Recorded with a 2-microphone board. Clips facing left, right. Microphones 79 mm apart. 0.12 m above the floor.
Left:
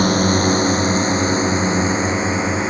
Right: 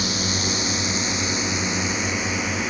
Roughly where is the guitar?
No guitar in this recording.